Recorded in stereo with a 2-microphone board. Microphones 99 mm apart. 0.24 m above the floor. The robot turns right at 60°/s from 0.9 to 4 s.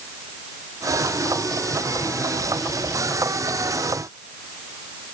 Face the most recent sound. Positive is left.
No sound to turn to.